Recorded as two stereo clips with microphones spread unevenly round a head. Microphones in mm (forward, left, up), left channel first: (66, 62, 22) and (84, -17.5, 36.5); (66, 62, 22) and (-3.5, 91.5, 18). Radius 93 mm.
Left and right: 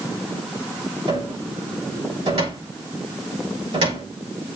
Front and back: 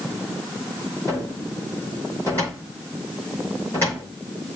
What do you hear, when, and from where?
1.1 s a cupboard door: 100° right, 5 m